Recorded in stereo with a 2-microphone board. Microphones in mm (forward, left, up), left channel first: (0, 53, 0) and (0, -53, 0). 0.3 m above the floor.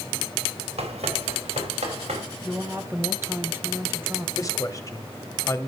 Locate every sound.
0.8 s running footsteps: 85° right, 4.5 m
2.4 s a woman speaking: 20° right (ahead or behind), 1.7 m
4.4 s a man speaking: 35° left (ahead or behind), 1.4 m